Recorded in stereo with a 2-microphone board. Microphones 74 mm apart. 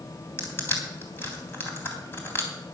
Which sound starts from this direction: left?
Crushing, at 0.4 s.